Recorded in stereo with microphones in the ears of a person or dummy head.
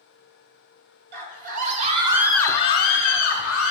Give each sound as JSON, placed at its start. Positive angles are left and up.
{"t": 1.1, "sound": "a scream", "side_deg": -50, "distance_m": 1.2}